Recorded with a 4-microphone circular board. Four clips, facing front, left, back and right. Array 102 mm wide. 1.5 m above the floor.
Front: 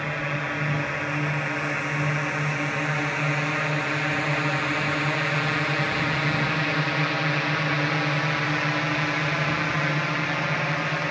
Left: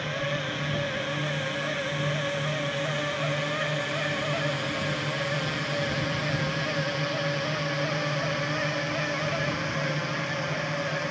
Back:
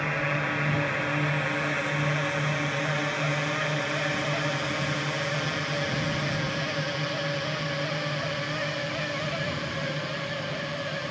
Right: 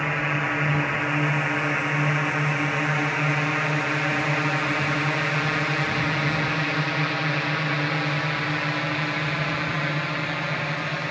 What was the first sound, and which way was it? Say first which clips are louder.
A drone: right 4 dB, even; 90° right.